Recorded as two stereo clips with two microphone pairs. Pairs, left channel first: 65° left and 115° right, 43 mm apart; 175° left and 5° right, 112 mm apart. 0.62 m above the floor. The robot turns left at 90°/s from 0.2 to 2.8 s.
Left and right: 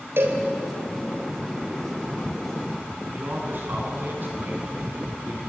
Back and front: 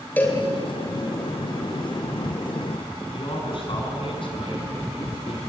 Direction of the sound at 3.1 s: 145° right.